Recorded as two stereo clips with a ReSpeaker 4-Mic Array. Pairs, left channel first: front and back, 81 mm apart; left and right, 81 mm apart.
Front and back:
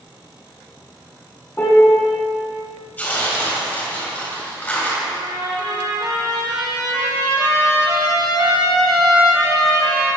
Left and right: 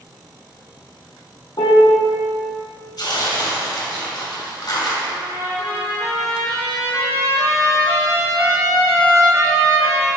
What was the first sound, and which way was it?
A piano, 70° left.